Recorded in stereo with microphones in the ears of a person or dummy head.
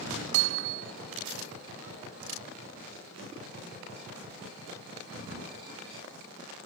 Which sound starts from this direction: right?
Hammering, at 0.3 s.